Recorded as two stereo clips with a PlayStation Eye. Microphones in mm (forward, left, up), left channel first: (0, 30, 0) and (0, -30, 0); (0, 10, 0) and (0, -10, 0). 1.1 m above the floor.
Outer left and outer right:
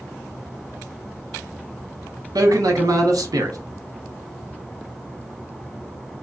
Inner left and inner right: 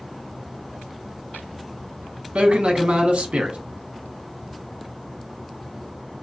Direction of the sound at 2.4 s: 80° right.